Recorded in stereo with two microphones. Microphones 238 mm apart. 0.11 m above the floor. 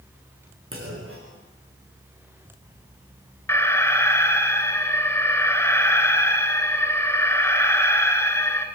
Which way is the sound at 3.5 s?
10° left (ahead or behind).